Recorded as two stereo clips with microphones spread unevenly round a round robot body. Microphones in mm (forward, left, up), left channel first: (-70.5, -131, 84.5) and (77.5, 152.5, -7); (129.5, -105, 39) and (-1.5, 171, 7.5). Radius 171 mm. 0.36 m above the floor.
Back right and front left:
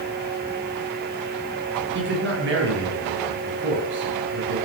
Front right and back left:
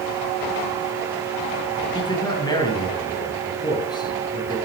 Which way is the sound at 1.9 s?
10° left.